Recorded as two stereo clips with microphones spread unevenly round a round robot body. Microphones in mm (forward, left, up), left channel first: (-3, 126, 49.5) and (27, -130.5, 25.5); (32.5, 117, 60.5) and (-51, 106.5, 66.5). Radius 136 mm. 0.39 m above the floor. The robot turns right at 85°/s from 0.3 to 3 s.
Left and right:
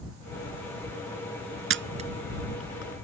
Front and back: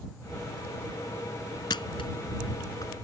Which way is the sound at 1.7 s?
45° right.